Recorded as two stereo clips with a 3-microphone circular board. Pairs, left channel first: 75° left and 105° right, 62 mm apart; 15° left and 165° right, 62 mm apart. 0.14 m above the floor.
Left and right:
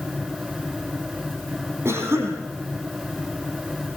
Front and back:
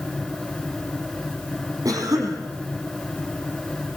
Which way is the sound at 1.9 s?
150° right.